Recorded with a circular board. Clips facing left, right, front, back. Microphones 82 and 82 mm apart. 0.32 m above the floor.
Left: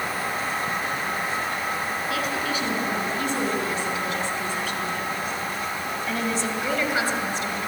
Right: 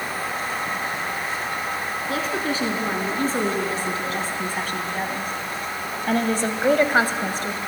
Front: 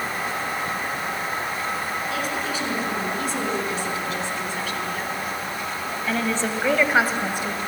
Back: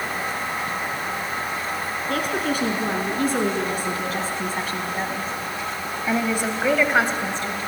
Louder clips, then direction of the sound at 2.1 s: Right 4 dB, back 3 dB; 145° right.